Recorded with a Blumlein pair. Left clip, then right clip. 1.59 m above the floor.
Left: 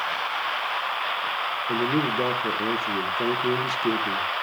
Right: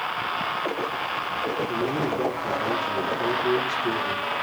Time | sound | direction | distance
1.7 | a man speaking | 15° left | 1.6 m